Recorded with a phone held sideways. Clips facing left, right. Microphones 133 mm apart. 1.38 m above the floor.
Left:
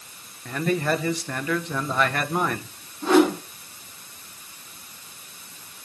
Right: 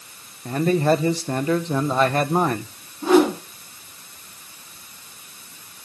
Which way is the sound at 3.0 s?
5° right (ahead or behind).